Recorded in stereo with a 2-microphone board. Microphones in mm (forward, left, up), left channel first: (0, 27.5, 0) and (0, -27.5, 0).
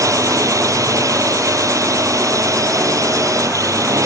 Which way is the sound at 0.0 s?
70° right (ahead or behind).